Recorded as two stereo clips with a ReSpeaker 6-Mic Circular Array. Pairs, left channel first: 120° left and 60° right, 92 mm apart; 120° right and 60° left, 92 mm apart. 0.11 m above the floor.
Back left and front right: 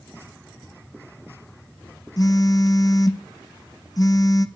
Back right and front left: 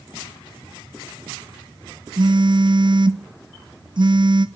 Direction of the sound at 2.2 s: 80° left.